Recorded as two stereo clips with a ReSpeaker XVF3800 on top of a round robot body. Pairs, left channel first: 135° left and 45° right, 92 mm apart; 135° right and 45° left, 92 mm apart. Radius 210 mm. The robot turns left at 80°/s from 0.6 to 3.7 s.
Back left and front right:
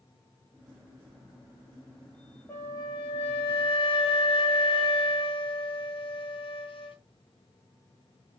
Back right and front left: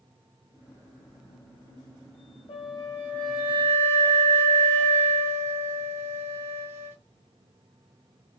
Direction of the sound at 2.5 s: 155° right.